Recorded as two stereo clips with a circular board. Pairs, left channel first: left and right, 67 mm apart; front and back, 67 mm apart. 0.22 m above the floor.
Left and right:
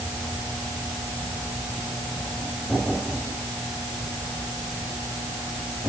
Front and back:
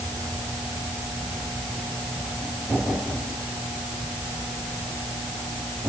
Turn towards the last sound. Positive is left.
No sound to turn to.